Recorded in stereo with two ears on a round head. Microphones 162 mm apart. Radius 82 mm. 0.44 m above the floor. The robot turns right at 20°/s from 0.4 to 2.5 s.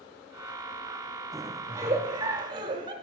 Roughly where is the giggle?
Centre.